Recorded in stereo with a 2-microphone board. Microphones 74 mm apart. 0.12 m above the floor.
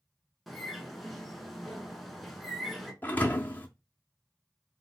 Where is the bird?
Centre (ahead or behind), 0.7 m.